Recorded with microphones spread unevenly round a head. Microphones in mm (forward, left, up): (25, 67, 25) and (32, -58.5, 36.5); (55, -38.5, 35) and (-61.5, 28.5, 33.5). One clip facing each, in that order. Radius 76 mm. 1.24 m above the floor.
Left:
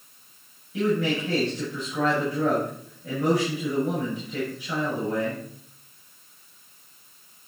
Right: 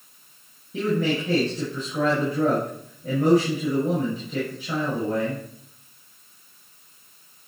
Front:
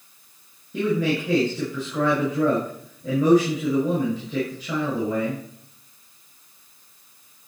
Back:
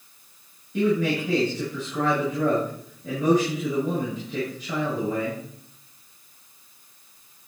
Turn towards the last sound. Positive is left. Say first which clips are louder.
# right 1 dB, even
turn(degrees=-25)